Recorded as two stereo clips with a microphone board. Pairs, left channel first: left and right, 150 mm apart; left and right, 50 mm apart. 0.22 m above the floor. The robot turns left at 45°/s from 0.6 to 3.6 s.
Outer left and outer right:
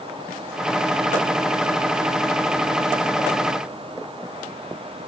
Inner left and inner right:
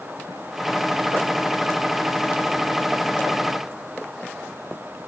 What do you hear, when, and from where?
Only background noise.